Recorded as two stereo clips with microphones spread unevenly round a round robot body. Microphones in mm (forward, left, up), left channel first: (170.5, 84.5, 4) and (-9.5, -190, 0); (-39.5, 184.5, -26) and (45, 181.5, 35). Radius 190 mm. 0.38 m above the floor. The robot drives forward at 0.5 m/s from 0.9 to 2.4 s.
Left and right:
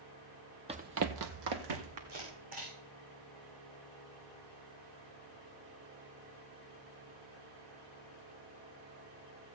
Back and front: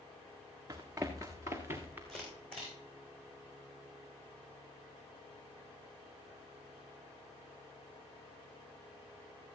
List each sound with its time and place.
0.7 s running footsteps: 50° right, 0.9 m; by 2.0 s 125° right, 1.9 m
2.1 s a camera shutter: 165° right, 5 m